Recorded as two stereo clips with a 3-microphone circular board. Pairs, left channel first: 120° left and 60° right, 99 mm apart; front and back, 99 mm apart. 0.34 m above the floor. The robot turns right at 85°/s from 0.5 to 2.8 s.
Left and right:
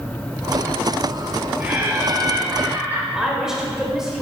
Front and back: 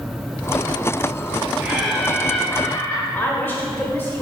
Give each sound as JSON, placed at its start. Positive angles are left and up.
{"t": 1.6, "sound": "laughter", "azimuth_deg": -115, "distance_m": 1.1}
{"t": 3.1, "sound": "a woman speaking", "azimuth_deg": 15, "distance_m": 1.2}